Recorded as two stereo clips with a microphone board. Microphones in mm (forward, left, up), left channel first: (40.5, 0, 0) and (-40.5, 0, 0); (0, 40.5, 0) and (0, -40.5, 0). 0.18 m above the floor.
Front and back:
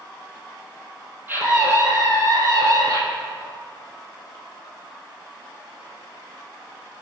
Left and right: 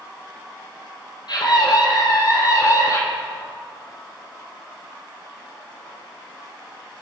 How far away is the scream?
About 4.5 m.